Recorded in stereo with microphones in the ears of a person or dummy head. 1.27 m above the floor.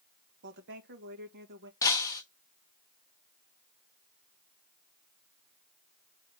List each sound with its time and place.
0.4 s a woman speaking: 60° right (ahead or behind), 1.6 m
1.8 s breaking glass: 15° left (ahead or behind), 1.0 m